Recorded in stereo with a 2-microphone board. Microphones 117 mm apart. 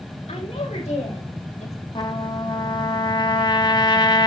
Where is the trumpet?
40° left (ahead or behind), 1.7 m.